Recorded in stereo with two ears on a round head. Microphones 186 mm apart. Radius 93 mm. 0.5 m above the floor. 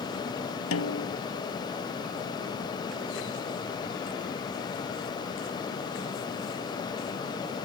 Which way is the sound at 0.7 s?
75° left (ahead or behind).